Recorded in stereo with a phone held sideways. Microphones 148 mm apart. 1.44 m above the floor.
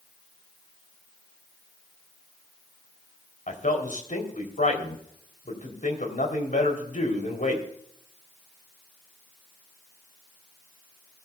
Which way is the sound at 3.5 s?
60° left (ahead or behind).